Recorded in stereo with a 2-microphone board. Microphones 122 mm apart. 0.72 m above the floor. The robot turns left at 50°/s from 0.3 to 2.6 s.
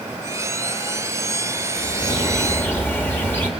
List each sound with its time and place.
1.8 s a bird: 65° left, 1.2 m; by 3.5 s 20° left, 1.2 m